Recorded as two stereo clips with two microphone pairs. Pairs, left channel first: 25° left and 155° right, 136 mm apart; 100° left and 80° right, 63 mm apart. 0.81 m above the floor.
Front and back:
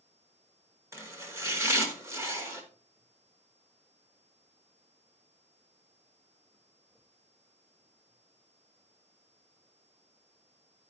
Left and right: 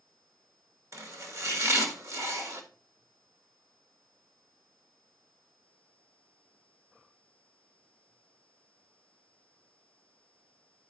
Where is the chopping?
90° right, 1.6 m.